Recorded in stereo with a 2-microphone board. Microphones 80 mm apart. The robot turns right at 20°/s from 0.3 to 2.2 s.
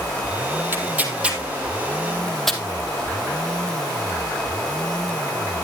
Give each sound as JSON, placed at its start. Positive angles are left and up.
{"t": 0.7, "sound": "tearing paper", "side_deg": -25, "distance_m": 1.6}